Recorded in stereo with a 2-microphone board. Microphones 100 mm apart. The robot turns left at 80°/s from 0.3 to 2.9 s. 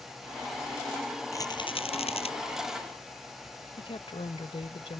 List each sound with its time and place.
1.3 s a rattle: 150° left; by 2.3 s 70° left
3.8 s a woman speaking: 70° left (ahead or behind)